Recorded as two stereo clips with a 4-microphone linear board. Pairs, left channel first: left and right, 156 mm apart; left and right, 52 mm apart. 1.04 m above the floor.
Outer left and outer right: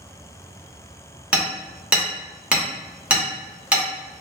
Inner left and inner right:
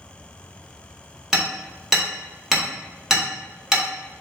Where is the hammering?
10° right (ahead or behind), 0.8 m.